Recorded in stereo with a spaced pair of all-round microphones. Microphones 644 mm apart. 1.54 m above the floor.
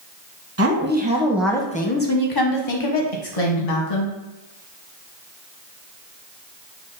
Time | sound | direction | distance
0.6 | a woman speaking | 25° right (ahead or behind) | 1.0 m